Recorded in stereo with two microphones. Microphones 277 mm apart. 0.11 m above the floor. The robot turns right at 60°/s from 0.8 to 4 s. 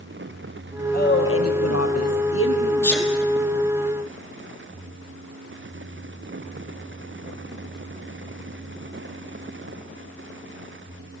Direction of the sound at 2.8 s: 10° left (ahead or behind).